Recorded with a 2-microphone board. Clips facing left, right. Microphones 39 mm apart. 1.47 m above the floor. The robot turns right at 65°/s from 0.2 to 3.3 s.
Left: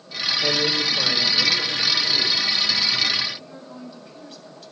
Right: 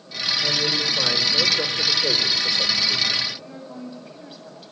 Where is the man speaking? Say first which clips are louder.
Left 2 dB; 145° left, 6.5 m; by 3.2 s 35° right, 6.5 m.